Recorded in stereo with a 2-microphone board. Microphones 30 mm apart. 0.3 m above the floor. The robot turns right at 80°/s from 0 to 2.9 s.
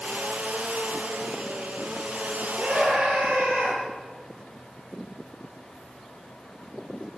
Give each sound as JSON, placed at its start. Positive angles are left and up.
{"t": 2.6, "sound": "a scream", "side_deg": -60, "distance_m": 9.0}